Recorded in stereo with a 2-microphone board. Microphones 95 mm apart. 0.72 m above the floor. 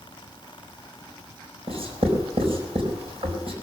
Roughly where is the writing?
Right.